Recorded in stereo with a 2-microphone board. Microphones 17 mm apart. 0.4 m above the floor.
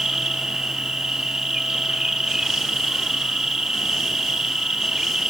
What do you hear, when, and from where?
0.0 s an insect: 55° right (ahead or behind), 2.5 m